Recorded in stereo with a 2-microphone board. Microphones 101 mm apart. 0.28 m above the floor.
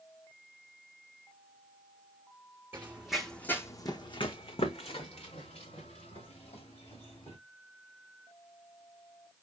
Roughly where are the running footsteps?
Centre.